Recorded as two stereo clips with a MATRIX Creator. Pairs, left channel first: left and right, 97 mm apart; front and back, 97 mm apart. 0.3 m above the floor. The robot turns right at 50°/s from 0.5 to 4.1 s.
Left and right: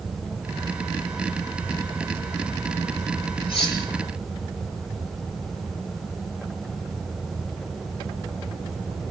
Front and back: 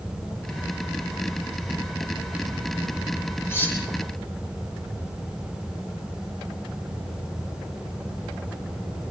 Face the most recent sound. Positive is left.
turn(degrees=95)